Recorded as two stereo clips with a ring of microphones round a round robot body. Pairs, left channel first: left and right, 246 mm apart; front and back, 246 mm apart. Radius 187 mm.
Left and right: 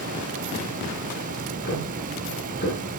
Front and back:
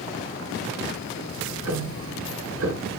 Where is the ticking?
155° left, 4.5 m.